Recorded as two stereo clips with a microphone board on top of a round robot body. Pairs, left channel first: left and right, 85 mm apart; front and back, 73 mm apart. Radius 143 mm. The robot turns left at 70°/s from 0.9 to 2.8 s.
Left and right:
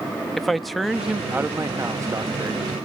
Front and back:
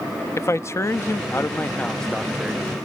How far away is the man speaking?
About 0.8 m.